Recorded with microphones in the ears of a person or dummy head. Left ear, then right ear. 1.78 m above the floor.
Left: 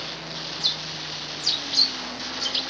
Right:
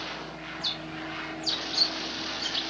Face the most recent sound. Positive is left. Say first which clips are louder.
# left 6 dB
turn(degrees=15)  # may be behind; listen again after turning